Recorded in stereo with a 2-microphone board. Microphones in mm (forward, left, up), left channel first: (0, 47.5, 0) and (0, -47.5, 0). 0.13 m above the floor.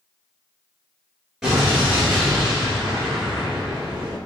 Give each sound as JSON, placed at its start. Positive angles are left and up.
{"t": 1.4, "sound": "an explosion", "side_deg": -5, "distance_m": 1.4}